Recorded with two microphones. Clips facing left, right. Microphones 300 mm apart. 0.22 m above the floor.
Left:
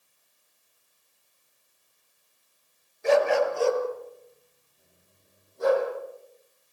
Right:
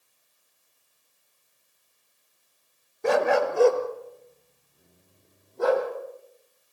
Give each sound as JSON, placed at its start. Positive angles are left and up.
{"t": 3.0, "sound": "a dog barking", "side_deg": -65, "distance_m": 1.4}